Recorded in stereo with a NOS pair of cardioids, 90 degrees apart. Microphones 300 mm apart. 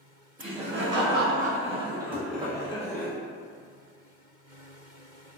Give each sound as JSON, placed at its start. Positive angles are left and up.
{"t": 0.4, "sound": "laughter", "azimuth_deg": -45, "distance_m": 1.8}
{"t": 2.1, "sound": "knocking", "azimuth_deg": -15, "distance_m": 0.7}